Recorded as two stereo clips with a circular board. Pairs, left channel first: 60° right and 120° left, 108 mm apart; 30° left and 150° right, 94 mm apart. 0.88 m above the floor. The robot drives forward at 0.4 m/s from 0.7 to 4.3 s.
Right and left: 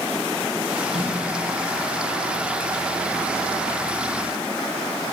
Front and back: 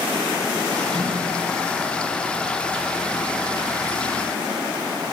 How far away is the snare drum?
About 6 m.